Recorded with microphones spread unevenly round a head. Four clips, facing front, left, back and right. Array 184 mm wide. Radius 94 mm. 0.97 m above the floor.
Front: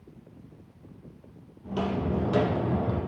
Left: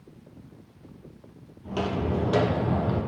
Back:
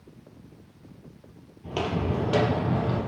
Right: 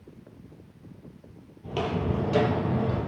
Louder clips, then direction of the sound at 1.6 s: Left 1 dB, back 1 dB; 140° right.